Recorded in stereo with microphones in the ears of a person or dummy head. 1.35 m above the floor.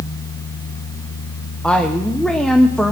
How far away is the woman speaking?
About 0.7 m.